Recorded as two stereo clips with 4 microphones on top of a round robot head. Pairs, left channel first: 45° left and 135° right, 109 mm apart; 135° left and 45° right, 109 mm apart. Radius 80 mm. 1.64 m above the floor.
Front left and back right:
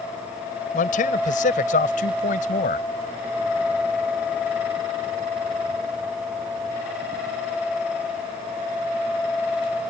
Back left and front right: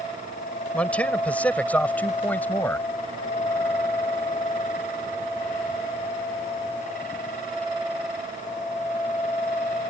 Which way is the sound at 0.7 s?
55° left.